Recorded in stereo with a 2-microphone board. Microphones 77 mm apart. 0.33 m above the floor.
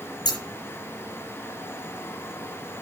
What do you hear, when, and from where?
0.2 s scissors: 70° left (ahead or behind), 4 m